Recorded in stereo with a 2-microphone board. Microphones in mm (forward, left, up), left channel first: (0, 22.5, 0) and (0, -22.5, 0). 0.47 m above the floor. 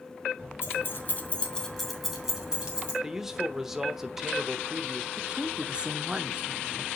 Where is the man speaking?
10° right (ahead or behind), 1.0 m.